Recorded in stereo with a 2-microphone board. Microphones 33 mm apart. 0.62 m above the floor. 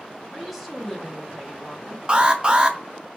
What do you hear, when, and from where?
0.3 s a woman speaking: 5° right (ahead or behind), 0.8 m
2.1 s an alarm: 30° right (ahead or behind), 0.6 m